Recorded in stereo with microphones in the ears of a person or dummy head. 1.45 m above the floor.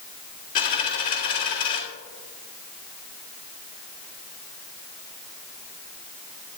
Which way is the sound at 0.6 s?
45° left (ahead or behind).